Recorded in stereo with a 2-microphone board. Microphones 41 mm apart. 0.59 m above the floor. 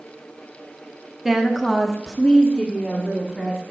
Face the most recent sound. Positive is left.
turn(degrees=15)  # may be behind; listen again after turning